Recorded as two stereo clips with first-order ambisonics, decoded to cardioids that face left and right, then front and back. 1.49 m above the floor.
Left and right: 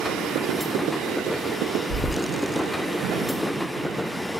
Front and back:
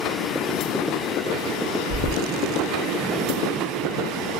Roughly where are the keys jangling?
Ahead left.